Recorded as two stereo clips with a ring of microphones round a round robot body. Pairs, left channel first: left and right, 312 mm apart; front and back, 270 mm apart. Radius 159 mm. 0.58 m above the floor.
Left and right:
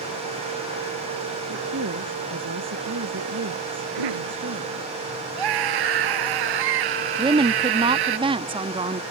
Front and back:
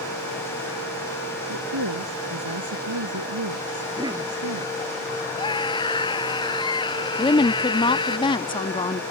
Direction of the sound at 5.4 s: 75° right.